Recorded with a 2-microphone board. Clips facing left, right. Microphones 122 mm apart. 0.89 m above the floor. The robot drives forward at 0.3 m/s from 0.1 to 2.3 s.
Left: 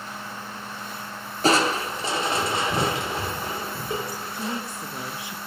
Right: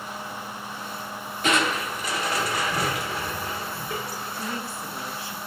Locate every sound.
1.4 s crushing: 35° left (ahead or behind), 0.6 m; by 4.6 s 25° left (ahead or behind), 0.8 m
4.3 s a woman speaking: 20° left (ahead or behind), 0.6 m